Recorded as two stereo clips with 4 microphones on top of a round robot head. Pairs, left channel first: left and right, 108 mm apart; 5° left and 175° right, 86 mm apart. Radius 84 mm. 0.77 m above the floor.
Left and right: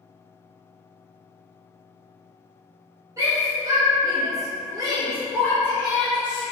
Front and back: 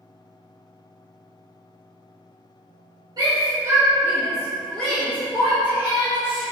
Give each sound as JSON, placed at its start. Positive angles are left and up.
{"t": 3.2, "sound": "a shout", "azimuth_deg": -145, "distance_m": 1.7}